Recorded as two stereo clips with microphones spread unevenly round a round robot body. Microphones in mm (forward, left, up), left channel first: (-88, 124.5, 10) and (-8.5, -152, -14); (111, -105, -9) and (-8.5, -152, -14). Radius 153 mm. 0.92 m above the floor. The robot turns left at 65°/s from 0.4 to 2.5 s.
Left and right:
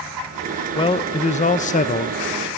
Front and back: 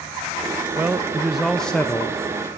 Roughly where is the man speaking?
Behind.